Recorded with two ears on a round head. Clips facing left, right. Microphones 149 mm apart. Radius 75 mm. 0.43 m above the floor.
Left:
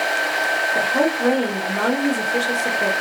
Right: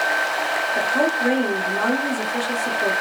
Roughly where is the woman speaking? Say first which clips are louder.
Left 2 dB; left.